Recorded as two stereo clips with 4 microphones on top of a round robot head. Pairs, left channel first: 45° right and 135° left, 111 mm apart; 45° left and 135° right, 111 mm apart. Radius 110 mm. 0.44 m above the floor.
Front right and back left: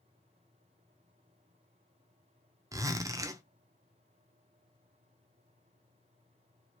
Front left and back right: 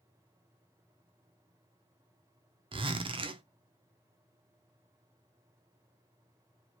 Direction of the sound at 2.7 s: 170° right.